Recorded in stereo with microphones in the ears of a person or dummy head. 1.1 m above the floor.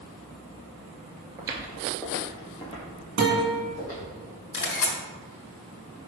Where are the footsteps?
25° right (ahead or behind), 1.1 m; by 4.1 s 40° left (ahead or behind), 3.5 m.